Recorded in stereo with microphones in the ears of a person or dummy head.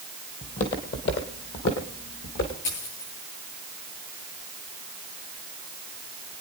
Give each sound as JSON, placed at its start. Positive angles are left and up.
{"t": 0.4, "sound": "footsteps", "side_deg": 35, "distance_m": 1.9}
{"t": 2.6, "sound": "a dropped coin", "side_deg": 65, "distance_m": 9.0}